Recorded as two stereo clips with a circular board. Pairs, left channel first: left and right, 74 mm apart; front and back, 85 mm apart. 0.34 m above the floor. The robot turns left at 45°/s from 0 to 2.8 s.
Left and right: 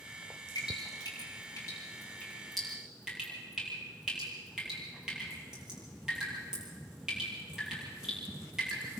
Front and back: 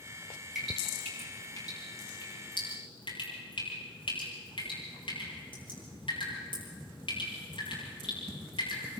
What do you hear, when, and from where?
0.6 s dripping: 90° left, 9 m; by 8.8 s 10° right, 9 m